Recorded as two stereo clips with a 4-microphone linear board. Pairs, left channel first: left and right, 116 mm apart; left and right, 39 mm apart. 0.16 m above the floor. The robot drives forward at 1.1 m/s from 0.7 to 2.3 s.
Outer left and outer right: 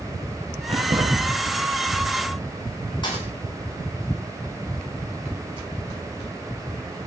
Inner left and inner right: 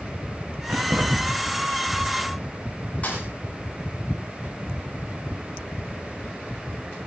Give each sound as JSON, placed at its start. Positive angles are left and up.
{"t": 0.7, "sound": "keys jangling", "side_deg": -50, "distance_m": 9.0}
{"t": 3.0, "sound": "a thud", "side_deg": 40, "distance_m": 8.5}